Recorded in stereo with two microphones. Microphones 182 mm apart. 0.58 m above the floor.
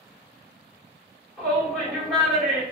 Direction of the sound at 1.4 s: Centre (ahead or behind).